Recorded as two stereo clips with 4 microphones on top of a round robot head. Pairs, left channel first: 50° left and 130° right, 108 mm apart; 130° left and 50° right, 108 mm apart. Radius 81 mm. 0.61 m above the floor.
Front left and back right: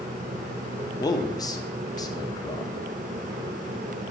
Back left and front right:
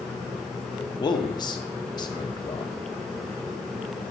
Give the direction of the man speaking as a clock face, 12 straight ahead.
9 o'clock.